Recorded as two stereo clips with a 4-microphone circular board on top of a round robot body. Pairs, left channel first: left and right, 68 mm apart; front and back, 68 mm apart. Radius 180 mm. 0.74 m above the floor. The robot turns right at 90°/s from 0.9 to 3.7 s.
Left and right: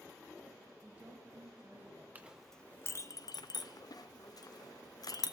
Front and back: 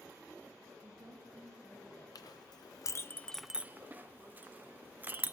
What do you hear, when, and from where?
0.8 s a woman speaking: 175° right, 5.5 m; by 2.0 s 70° right, 5.5 m
2.1 s a clink: 25° right, 0.6 m; by 5.3 s 115° left, 0.6 m